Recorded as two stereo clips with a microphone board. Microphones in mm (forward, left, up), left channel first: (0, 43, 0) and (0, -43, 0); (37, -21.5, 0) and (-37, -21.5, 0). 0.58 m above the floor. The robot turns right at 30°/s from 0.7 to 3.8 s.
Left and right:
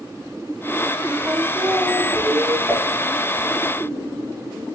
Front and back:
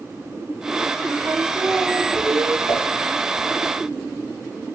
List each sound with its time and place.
1.2 s singing: 165° right, 1.3 m; by 2.6 s 125° right, 1.3 m
2.7 s dishes clattering: 5° right, 4 m; by 2.9 s straight ahead, 4 m